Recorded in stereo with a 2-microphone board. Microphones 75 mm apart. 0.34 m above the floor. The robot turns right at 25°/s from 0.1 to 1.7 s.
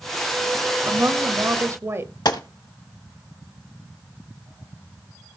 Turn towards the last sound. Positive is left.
turn(degrees=65)  # may be behind; listen again after turning